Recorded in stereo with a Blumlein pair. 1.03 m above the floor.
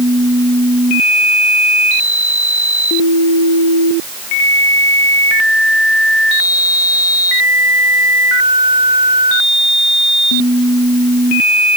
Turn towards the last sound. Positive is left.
No sound to turn to.